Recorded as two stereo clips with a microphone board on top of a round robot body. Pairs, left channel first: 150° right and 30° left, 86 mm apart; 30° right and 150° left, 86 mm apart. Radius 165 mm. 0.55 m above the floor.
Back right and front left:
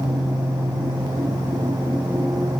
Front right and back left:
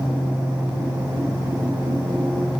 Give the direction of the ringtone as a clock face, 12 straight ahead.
I don't hear a ringtone.